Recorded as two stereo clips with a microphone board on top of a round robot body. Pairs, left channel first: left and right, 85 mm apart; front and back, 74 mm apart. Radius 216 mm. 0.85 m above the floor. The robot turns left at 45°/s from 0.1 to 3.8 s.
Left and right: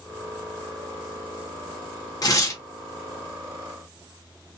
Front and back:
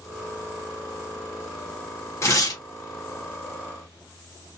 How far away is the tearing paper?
About 1.2 m.